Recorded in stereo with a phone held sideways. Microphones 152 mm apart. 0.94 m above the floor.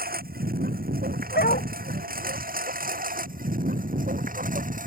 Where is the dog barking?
85° left.